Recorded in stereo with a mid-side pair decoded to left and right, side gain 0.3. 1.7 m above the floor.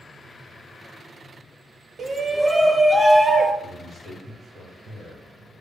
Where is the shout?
60° right, 1.0 m; by 3.5 s 20° right, 2 m.